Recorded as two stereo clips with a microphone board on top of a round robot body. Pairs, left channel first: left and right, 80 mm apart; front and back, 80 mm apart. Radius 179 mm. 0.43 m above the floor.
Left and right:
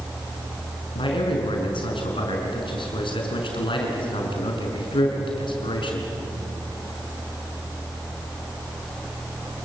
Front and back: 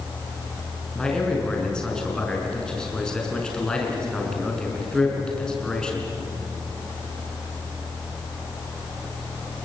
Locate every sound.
0.9 s a man speaking: 80° left, 5.5 m